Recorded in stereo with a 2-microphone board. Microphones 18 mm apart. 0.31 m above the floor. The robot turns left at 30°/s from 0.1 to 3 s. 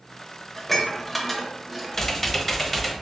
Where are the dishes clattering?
15° left (ahead or behind), 0.6 m; by 2.1 s centre (ahead or behind), 0.6 m.